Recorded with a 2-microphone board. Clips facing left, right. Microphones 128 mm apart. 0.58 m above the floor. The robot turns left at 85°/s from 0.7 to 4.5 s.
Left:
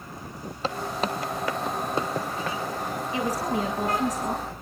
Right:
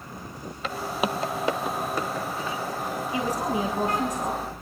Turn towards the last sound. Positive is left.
turn(degrees=-140)